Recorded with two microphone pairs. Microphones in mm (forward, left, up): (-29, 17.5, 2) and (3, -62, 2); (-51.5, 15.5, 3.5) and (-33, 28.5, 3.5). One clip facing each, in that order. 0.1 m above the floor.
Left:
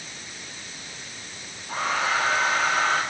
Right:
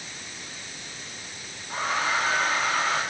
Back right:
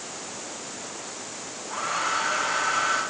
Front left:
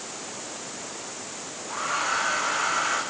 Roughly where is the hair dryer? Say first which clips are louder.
Left 1 dB, even; left.